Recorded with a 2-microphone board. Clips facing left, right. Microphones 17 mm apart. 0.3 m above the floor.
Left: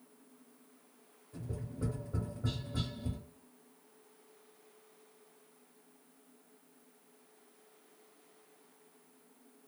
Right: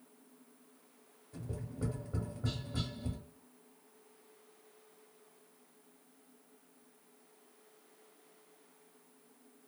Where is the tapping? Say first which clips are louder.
Even; 35° right (ahead or behind), 1.2 m.